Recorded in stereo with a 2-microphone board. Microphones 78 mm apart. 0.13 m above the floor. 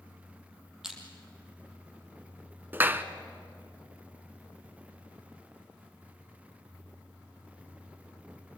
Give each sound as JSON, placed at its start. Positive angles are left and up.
{"t": 0.8, "sound": "crushing", "side_deg": -5, "distance_m": 4.0}
{"t": 2.7, "sound": "a clap", "side_deg": -25, "distance_m": 1.1}